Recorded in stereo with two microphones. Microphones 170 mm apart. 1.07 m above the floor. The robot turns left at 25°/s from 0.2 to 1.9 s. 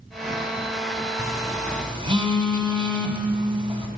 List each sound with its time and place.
1.2 s a phone buzzing: 20° right (ahead or behind), 1.1 m; by 3.9 s 30° right (ahead or behind), 1.1 m